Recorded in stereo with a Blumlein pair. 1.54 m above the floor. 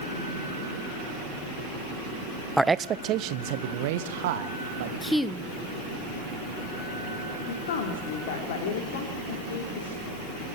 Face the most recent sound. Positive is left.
turn(degrees=55)